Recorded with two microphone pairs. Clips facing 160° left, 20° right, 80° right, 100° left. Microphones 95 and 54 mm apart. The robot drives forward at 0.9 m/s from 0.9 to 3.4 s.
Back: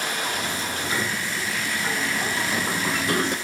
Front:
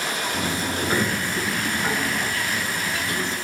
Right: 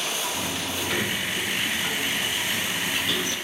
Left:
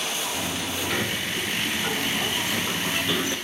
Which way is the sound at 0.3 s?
10° left.